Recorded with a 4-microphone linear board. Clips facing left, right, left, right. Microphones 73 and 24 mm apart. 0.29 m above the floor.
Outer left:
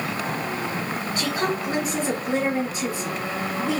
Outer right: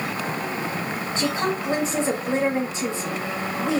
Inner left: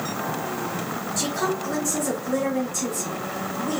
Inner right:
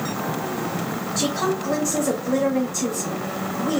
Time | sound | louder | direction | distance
1.2 | a woman speaking | outer right 1 dB, inner right 2 dB | 30° right (ahead or behind) | 1.1 m